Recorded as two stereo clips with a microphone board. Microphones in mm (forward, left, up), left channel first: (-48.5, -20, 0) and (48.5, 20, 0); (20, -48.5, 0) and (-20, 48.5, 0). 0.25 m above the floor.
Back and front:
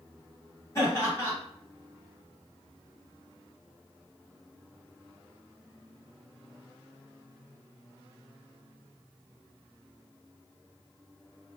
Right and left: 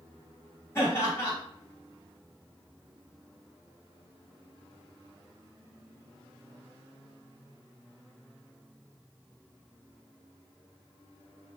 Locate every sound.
0.8 s laughter: 115° right, 1.9 m